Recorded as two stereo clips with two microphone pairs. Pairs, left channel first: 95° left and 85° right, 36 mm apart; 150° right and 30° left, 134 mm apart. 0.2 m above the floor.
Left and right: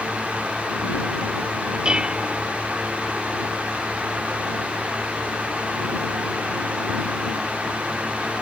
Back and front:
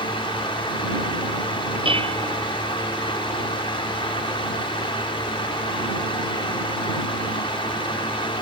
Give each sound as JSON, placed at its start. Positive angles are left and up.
{"t": 1.9, "sound": "dishes clattering", "azimuth_deg": -15}